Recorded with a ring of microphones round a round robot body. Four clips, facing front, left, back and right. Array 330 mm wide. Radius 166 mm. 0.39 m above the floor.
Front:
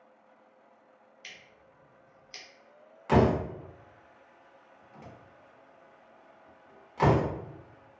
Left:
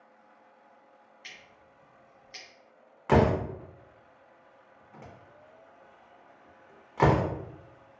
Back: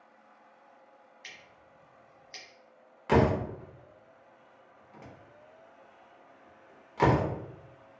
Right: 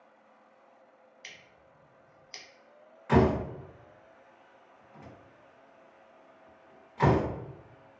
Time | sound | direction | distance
1.2 | scissors | 95° right | 1.2 m
3.1 | a door slam | 105° left | 0.7 m